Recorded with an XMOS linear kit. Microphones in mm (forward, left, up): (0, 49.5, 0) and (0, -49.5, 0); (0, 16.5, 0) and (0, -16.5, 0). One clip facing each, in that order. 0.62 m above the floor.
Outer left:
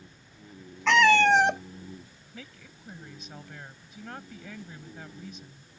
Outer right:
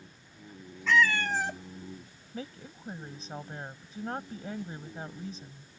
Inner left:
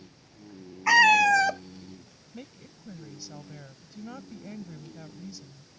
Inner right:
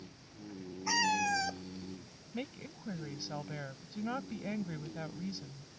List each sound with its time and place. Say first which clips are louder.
0.9 s a cat meowing: outer left 7 dB, inner left 13 dB; 75° left (ahead or behind)
2.3 s a woman speaking: outer right 7 dB, inner right 4 dB; 35° right (ahead or behind)